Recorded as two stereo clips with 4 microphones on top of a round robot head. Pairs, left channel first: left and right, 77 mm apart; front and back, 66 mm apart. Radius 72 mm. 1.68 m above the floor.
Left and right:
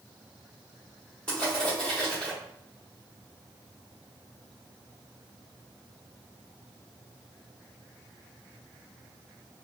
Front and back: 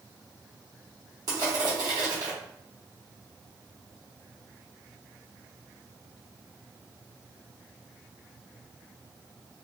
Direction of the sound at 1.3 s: 165° left.